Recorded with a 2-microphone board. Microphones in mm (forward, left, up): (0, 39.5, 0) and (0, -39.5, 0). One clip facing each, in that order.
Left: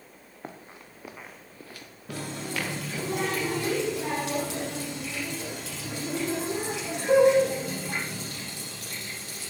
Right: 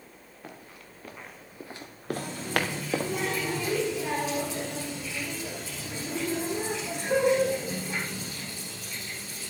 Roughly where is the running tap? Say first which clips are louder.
Right 4 dB; left.